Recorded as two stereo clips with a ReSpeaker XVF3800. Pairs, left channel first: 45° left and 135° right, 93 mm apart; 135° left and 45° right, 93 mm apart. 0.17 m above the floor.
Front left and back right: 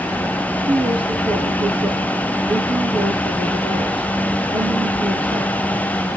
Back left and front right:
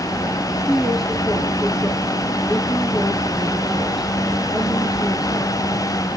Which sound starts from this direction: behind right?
A woman speaking, at 0.7 s.